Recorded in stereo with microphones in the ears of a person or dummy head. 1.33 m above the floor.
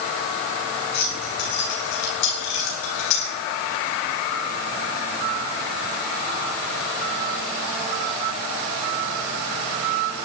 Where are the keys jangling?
45° left (ahead or behind), 5.5 m; by 3.3 s 75° left (ahead or behind), 5.5 m.